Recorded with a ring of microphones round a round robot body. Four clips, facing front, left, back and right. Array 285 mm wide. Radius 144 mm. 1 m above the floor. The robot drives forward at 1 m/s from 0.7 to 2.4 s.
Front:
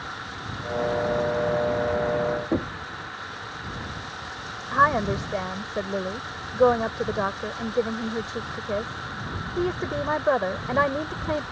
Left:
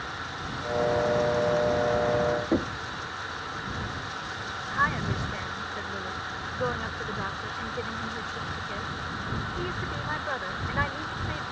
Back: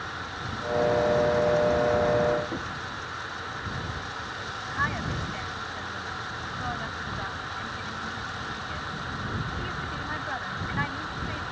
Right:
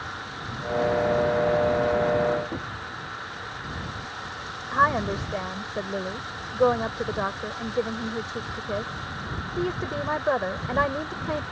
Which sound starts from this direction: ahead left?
Knocking, at 2.5 s.